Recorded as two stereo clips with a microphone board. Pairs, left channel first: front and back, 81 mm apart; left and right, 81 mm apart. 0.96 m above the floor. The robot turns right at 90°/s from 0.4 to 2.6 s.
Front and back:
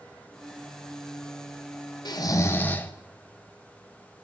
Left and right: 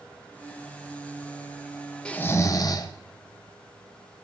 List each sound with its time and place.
2.0 s snoring: 15° left, 0.7 m; by 2.9 s 65° left, 0.7 m